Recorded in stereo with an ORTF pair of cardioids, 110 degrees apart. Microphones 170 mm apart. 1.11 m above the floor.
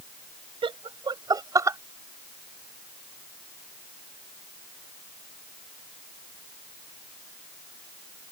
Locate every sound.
0.6 s laughter: 30° right; by 1.8 s 15° right